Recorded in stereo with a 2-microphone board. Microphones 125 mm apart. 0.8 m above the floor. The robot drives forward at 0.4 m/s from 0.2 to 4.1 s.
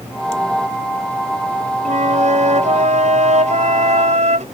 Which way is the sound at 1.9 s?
75° right (ahead or behind).